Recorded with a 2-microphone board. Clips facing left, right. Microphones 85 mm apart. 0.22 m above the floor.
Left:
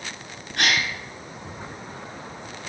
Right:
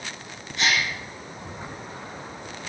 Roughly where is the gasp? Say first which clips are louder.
Left 1 dB; left.